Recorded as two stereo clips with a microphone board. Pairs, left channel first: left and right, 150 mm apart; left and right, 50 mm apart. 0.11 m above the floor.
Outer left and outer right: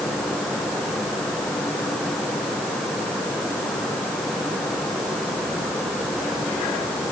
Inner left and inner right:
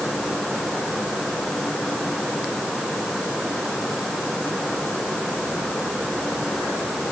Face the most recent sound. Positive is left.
No sound to turn to.